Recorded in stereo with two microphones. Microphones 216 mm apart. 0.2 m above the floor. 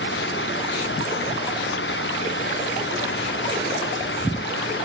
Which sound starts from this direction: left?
An engine running, at 0.0 s.